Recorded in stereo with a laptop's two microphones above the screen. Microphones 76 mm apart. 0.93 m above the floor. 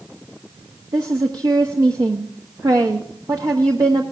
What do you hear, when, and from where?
0.9 s a woman speaking: 60° right (ahead or behind), 1.1 m